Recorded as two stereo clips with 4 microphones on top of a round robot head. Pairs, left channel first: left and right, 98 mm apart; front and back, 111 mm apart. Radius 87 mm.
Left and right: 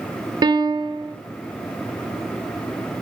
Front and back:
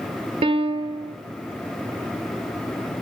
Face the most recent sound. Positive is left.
turn(degrees=-135)